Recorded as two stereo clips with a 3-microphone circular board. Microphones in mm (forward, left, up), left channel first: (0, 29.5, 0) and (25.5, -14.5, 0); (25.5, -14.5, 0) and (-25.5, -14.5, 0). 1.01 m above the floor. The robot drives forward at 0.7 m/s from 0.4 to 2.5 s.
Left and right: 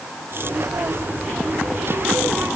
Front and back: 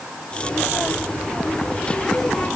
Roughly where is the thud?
I don't hear a thud.